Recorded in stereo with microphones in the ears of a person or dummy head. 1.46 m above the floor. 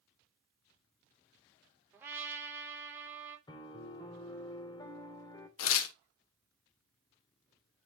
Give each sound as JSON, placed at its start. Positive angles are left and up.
{"t": 1.9, "sound": "a trumpet", "side_deg": -15, "distance_m": 2.5}
{"t": 3.5, "sound": "a piano", "side_deg": 25, "distance_m": 1.1}
{"t": 5.6, "sound": "tearing paper", "side_deg": 85, "distance_m": 0.8}